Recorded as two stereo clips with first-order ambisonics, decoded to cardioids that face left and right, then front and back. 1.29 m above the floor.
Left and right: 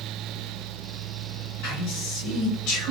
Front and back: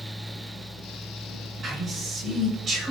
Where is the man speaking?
105° left, 6.5 m; by 2.9 s 115° left, 7.5 m.